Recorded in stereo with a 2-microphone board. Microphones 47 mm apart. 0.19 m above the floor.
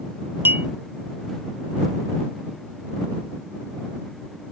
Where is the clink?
45° right (ahead or behind).